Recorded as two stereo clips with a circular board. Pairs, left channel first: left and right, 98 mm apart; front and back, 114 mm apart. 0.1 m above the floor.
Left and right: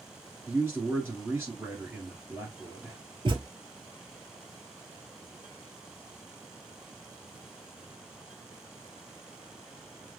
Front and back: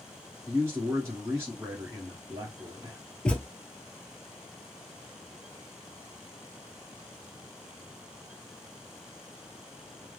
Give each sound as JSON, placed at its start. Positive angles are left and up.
{"t": 0.5, "sound": "a man speaking", "azimuth_deg": -135, "distance_m": 1.4}
{"t": 3.2, "sound": "a thud", "azimuth_deg": -80, "distance_m": 1.0}